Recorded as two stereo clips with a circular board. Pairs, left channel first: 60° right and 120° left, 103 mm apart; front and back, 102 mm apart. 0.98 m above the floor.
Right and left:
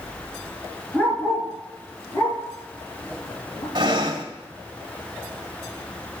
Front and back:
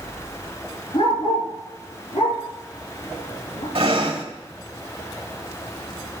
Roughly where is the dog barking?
Ahead.